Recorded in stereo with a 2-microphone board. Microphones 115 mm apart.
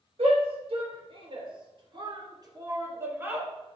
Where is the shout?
60° right (ahead or behind), 3 m; by 3.5 s 15° right (ahead or behind), 1.7 m.